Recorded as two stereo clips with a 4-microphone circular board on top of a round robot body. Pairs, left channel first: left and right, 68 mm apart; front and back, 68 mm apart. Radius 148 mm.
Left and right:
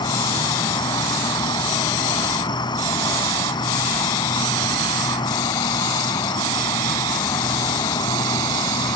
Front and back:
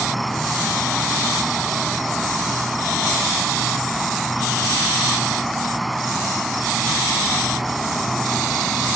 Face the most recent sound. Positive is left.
turn(degrees=90)